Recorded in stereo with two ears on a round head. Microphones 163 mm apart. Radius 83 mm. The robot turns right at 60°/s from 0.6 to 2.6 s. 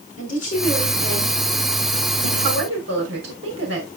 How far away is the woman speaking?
About 5 m.